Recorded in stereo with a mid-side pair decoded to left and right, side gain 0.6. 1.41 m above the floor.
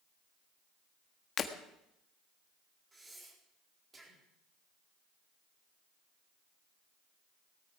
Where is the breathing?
25° right, 4 m.